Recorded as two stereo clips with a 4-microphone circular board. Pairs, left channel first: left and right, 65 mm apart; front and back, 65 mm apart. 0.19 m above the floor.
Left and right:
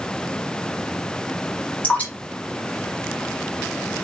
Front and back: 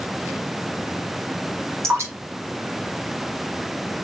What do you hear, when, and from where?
1.8 s dripping: 150° left, 1.9 m